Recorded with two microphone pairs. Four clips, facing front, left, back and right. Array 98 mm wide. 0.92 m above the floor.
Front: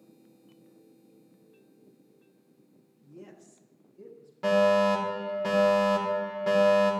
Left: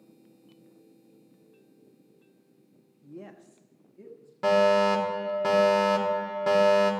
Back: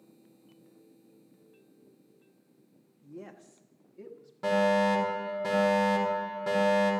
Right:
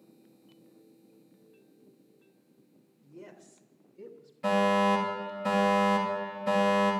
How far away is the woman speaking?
About 1.3 m.